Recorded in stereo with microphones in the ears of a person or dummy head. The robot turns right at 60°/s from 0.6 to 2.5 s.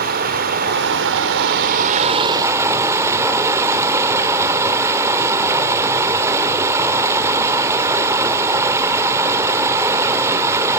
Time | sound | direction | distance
0.0 | running water | 125° right | 1.1 m